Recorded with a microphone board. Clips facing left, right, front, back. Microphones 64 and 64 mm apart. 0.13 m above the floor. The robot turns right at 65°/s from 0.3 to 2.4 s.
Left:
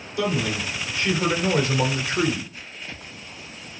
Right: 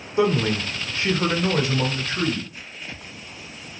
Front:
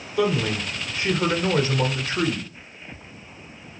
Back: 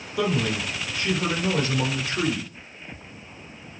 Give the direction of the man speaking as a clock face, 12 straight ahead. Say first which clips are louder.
Right 4 dB, front 2 dB; 3 o'clock.